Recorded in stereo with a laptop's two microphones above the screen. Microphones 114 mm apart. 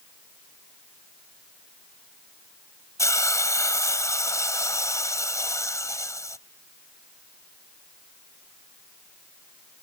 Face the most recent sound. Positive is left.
turn(degrees=25)  # may be behind; listen again after turning